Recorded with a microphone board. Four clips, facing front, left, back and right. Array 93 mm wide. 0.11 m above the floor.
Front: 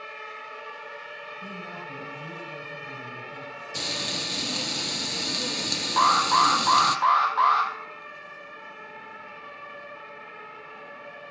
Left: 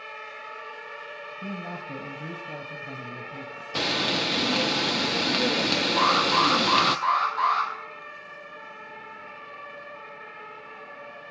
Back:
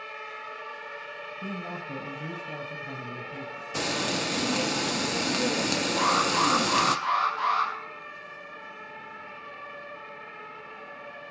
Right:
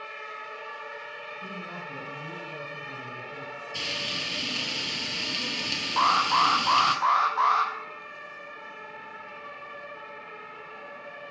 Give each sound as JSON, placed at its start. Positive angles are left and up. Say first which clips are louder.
{"t": 1.4, "sound": "a woman speaking", "louder": "left 5 dB, back 5 dB", "azimuth_deg": 125, "distance_m": 2.0}
{"t": 3.8, "sound": "frying", "louder": "left 10 dB, back 6 dB", "azimuth_deg": 115, "distance_m": 0.6}
{"t": 6.0, "sound": "an alarm", "louder": "right 1 dB, front 6 dB", "azimuth_deg": -20, "distance_m": 3.0}